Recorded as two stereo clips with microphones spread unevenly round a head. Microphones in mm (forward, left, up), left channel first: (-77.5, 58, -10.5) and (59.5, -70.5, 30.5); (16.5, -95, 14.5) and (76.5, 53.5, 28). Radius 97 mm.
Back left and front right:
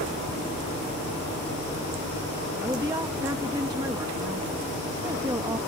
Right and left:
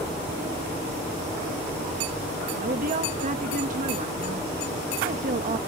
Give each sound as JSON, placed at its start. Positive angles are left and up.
{"t": 2.6, "sound": "a woman speaking", "azimuth_deg": 30}